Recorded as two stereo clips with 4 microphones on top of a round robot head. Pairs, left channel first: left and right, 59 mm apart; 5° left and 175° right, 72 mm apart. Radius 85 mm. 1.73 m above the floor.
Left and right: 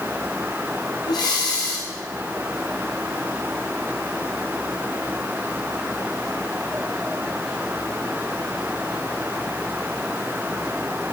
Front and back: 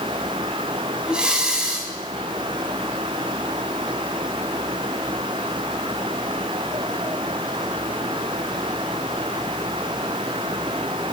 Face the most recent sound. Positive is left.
turn(degrees=105)